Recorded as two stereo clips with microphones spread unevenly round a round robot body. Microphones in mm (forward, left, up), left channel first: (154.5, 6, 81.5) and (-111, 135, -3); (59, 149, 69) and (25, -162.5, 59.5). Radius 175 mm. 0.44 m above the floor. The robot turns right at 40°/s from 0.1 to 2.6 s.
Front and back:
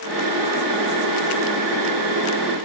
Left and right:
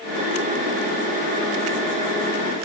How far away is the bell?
No bell in this recording.